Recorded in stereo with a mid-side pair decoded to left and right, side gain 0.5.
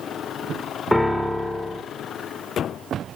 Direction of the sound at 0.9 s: 5° left.